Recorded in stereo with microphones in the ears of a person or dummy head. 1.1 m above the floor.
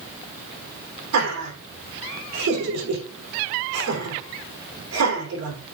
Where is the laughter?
85° right, 3.5 m.